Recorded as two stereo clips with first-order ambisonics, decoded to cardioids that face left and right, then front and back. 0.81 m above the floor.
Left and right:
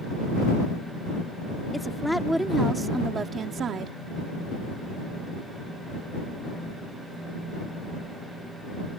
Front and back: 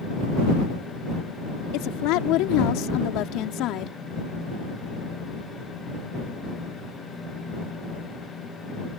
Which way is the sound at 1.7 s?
10° left.